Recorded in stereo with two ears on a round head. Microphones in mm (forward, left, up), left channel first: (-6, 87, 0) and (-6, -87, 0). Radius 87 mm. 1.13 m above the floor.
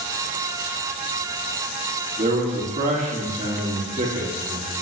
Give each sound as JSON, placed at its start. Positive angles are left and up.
{"t": 2.2, "sound": "a man speaking", "side_deg": -40, "distance_m": 2.5}